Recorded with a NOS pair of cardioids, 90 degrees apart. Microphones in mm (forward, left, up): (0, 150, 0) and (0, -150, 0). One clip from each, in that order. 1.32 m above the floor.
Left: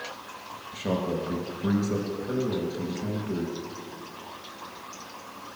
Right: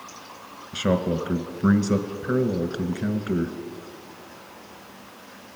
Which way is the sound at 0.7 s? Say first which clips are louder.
Right 5 dB; 55° right.